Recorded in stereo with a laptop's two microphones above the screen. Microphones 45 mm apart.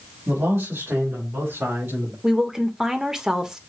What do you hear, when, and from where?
0.3 s a man speaking: 70° right (ahead or behind), 2.5 m; by 2.1 s 65° right (ahead or behind), 4.5 m
2.2 s a woman speaking: 15° right (ahead or behind), 1.0 m